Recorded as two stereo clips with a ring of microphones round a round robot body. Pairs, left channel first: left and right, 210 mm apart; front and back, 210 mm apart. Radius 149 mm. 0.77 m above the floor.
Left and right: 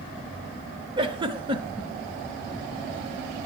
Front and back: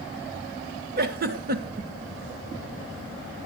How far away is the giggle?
About 0.5 m.